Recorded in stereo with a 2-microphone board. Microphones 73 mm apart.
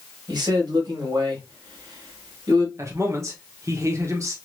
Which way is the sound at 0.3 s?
80° right.